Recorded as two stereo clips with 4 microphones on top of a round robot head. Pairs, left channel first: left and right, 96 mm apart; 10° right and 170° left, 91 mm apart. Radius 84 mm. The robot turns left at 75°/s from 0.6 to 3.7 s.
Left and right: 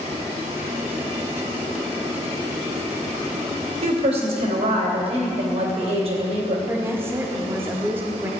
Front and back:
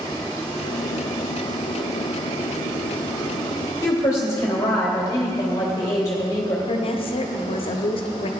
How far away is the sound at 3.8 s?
About 3 m.